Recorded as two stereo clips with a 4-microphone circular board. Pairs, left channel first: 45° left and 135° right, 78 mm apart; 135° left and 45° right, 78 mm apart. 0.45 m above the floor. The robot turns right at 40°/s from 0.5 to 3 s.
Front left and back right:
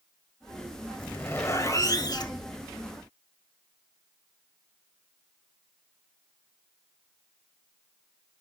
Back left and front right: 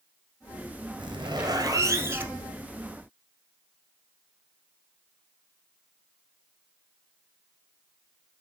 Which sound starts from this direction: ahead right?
A zipper, at 1.0 s.